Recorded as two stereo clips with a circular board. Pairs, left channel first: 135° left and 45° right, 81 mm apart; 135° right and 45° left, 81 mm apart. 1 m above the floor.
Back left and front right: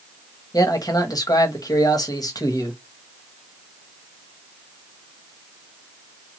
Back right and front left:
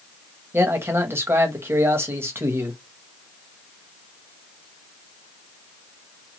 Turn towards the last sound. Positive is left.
turn(degrees=105)